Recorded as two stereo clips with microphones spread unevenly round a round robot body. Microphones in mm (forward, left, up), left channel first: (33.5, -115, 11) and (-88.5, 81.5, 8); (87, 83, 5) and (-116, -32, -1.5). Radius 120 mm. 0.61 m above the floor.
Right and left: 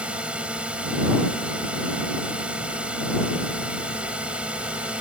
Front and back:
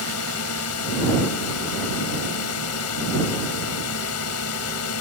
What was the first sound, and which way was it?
A drone, 35° left.